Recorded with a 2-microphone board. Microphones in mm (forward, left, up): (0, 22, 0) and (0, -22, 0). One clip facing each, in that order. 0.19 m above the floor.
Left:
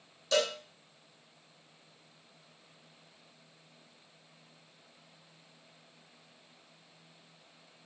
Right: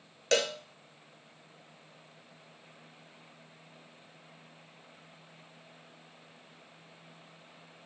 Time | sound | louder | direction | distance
0.3 | a cowbell | right 1 dB | 75° right (ahead or behind) | 0.9 m